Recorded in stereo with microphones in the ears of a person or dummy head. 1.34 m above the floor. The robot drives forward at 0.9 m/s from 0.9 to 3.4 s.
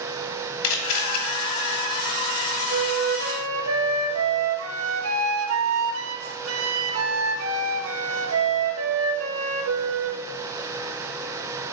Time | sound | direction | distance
0.6 | a camera shutter | 75° left (ahead or behind) | 3.5 m
2.7 | a flute | 60° right (ahead or behind) | 1.8 m